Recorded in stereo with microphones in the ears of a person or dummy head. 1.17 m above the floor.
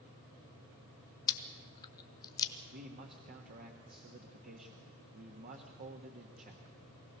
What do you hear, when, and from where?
1.3 s chewing: 20° left (ahead or behind), 1.4 m
2.7 s a man speaking: 50° right (ahead or behind), 1.5 m